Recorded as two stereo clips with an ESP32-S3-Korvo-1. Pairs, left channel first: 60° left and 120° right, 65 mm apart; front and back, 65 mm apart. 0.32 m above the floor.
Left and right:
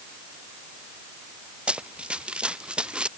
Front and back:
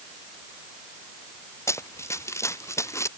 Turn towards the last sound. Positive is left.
turn(degrees=-45)